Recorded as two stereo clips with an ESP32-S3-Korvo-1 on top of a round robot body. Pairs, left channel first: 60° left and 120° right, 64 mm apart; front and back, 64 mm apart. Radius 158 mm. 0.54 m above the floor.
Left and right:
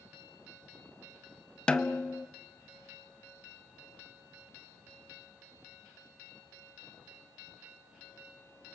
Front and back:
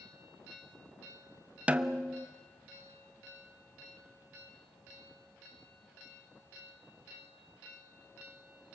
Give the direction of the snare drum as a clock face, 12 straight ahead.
8 o'clock.